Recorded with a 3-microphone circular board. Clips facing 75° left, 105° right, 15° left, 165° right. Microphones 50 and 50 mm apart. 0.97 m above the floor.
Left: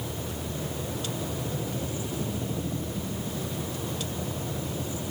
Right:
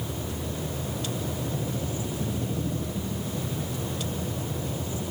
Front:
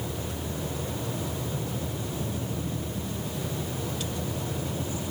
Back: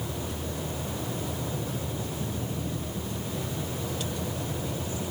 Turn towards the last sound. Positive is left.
No sound to turn to.